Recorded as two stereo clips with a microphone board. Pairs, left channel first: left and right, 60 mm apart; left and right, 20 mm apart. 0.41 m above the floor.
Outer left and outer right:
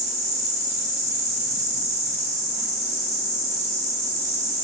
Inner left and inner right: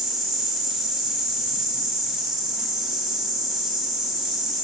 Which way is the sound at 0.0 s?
70° right (ahead or behind).